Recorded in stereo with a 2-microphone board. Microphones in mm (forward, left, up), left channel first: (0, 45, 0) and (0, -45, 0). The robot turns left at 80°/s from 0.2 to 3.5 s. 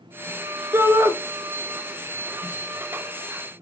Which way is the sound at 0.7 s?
30° right (ahead or behind).